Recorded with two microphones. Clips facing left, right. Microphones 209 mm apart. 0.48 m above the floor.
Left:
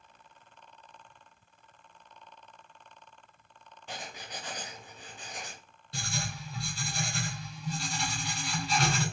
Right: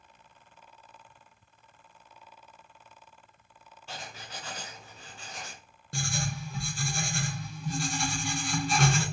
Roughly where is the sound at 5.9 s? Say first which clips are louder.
Right 4 dB; right.